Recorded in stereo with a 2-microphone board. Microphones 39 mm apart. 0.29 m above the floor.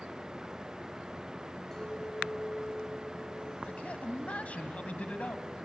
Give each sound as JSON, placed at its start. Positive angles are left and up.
{"t": 1.7, "sound": "a clink", "side_deg": 10, "distance_m": 3.0}
{"t": 3.6, "sound": "a man speaking", "side_deg": 35, "distance_m": 1.6}